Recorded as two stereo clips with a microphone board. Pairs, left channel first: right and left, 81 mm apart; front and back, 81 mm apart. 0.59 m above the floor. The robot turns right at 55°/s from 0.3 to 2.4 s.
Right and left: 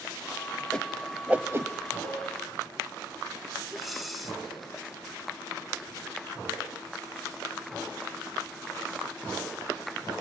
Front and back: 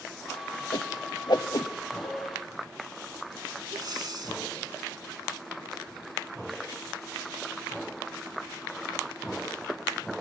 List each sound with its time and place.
0.7 s a whoosh: 15° right, 0.8 m; by 1.7 s 40° left, 0.8 m
2.0 s a cowbell: 55° left, 3 m; by 2.2 s 65° left, 3 m
3.7 s breathing: straight behind, 2 m